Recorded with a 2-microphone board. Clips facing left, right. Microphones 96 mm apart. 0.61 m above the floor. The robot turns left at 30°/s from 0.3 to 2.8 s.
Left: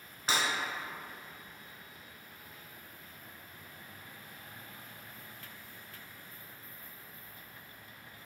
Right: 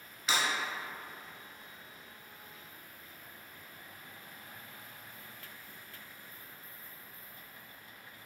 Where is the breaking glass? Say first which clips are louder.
Even; 35° left (ahead or behind), 1.5 m; by 0.4 s 40° left (ahead or behind), 1.5 m.